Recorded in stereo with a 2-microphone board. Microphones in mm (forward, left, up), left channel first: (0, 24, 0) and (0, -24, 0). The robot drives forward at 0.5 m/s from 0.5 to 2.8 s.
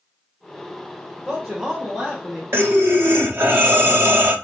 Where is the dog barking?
No dog barking in this recording.